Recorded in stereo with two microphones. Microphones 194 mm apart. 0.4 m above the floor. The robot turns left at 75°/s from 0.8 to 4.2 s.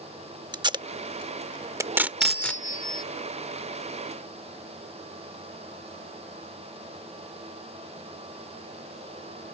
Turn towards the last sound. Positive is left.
turn(degrees=0)